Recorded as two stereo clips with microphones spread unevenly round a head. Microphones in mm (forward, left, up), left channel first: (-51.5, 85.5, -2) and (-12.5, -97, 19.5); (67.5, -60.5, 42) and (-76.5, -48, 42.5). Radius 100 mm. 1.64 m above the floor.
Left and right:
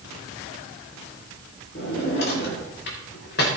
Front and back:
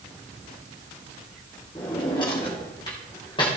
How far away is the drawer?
About 2.5 m.